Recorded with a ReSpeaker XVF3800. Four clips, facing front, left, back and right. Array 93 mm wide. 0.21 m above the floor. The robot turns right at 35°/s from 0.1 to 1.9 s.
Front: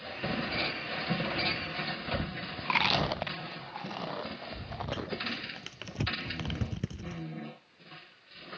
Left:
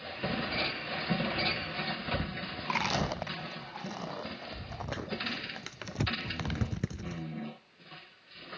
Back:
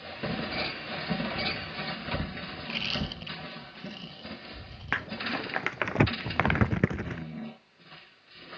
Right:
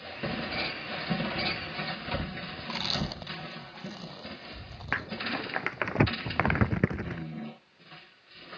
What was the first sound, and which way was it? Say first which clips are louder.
Chewing: left 4 dB, front 8 dB; 25° left.